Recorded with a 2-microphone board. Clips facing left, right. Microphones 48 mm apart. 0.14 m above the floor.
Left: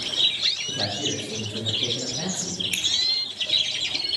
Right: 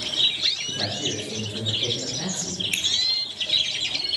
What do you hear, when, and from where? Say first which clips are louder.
0.7 s a man speaking: even; 45° left (ahead or behind), 5 m
2.7 s a finger snap: right 2 dB; 5° right (ahead or behind), 2 m